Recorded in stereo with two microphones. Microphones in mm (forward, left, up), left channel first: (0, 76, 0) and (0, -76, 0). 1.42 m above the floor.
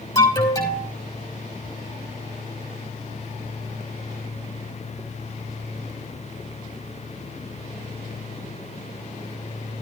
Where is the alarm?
20° left (ahead or behind), 6 m.